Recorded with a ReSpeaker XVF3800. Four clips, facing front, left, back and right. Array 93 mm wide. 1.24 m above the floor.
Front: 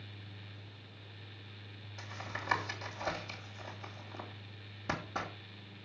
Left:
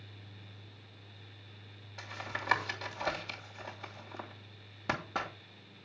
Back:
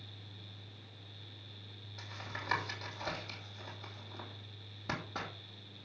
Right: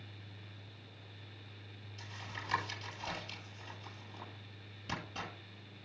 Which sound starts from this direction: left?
Tapping, at 2.0 s.